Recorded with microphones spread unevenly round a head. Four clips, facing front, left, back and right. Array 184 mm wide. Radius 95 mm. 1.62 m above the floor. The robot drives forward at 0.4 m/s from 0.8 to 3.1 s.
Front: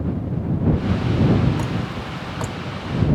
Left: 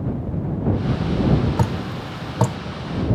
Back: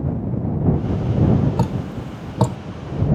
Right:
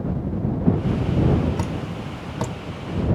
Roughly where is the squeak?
No squeak in this recording.